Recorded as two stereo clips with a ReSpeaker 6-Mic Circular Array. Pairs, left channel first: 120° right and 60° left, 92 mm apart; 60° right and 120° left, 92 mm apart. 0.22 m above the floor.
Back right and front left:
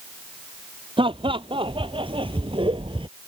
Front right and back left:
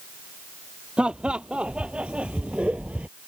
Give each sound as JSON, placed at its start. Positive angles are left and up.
{"t": 1.0, "sound": "laughter", "azimuth_deg": 40}